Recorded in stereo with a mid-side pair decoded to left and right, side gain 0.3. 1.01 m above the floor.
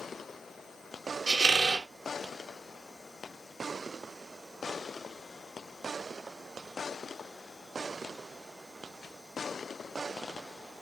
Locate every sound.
1.3 s a squeak: 70° right, 0.6 m